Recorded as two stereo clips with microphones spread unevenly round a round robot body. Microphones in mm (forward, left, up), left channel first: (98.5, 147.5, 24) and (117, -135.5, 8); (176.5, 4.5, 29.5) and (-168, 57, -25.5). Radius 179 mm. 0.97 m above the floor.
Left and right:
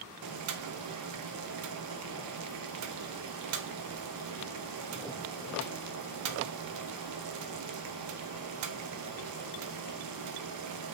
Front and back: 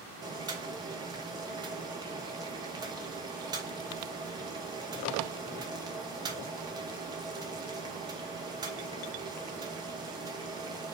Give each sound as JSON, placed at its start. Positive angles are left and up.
{"t": 0.2, "sound": "boiling", "azimuth_deg": -105, "distance_m": 0.5}